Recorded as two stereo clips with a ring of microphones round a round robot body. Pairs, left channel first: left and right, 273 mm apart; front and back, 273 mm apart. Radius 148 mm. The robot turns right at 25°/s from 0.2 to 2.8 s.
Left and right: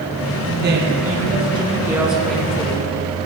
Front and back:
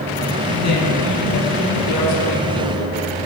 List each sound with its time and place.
0.4 s a woman speaking: 45° right, 3 m; by 3.3 s 15° left, 3 m